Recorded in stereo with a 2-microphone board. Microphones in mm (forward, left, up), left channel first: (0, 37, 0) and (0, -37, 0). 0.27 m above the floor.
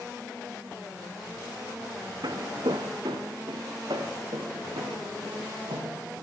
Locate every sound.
2.2 s footsteps: 70° right (ahead or behind), 0.8 m; by 5.9 s 85° right, 3 m